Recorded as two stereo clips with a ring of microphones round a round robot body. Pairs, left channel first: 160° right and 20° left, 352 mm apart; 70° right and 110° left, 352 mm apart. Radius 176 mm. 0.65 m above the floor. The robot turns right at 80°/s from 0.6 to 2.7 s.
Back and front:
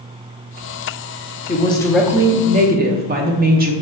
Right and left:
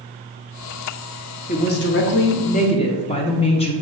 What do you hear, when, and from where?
1.5 s a woman speaking: 110° right, 0.5 m; by 3.7 s 10° right, 0.5 m